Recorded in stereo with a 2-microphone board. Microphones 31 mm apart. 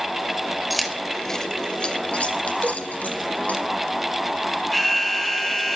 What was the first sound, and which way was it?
Keys jangling, centre (ahead or behind).